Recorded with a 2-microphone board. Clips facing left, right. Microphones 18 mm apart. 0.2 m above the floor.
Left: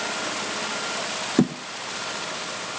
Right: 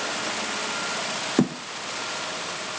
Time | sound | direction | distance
1.4 | a thud | 5° left (ahead or behind) | 1.4 m